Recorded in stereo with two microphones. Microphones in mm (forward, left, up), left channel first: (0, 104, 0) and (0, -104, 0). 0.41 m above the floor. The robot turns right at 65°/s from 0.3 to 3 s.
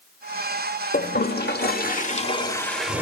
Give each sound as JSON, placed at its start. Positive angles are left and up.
{"t": 0.9, "sound": "a toilet flushing", "azimuth_deg": 55, "distance_m": 1.1}